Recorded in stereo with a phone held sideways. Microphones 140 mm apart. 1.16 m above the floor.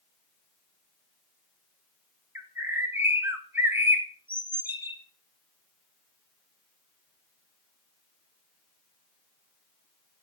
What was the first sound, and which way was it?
A bird, 15° right (ahead or behind).